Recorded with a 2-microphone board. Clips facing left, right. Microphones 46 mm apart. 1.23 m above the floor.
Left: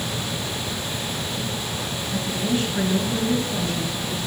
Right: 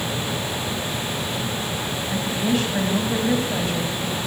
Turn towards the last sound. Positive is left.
turn(degrees=-70)  # may be behind; listen again after turning